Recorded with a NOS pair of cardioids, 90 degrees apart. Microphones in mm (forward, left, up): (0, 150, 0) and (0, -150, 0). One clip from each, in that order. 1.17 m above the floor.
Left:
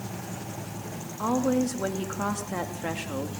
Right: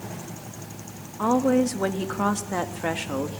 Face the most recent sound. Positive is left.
turn(degrees=-30)